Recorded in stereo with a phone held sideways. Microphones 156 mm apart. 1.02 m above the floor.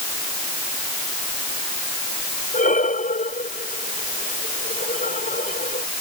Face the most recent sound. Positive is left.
turn(degrees=65)  # may be behind; listen again after turning